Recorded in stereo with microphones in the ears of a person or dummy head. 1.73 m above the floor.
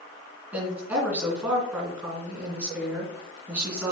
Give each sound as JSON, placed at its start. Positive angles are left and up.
{"t": 0.5, "sound": "a woman speaking", "side_deg": -5, "distance_m": 3.0}